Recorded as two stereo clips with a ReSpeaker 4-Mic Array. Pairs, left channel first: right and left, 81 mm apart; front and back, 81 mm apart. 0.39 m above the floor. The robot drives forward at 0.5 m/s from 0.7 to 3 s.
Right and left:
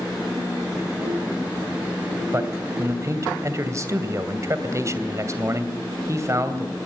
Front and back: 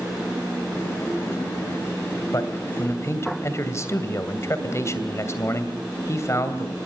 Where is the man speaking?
40° left, 2.5 m; by 6.8 s 45° left, 2.5 m.